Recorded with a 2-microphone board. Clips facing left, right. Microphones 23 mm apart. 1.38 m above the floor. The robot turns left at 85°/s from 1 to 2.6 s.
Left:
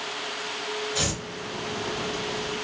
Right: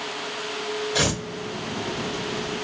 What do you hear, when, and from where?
0.9 s tearing paper: 65° right (ahead or behind), 0.9 m; by 1.2 s 75° right (ahead or behind), 0.9 m